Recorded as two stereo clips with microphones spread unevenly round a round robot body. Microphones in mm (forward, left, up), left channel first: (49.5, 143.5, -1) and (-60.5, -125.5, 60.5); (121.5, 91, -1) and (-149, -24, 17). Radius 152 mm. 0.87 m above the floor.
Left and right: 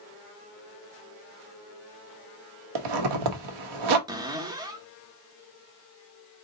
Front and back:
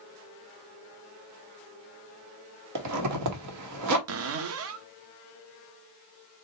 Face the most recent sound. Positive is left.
turn(degrees=-175)